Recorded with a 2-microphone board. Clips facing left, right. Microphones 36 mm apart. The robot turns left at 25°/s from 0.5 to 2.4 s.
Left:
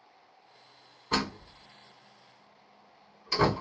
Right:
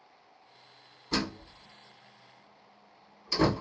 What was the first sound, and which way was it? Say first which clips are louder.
A door slam: left 2 dB; 60° left (ahead or behind).